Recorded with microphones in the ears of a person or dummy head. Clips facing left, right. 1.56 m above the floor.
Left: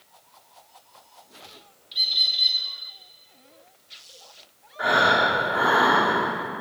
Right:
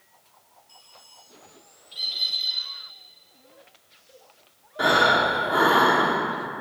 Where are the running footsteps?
No running footsteps in this recording.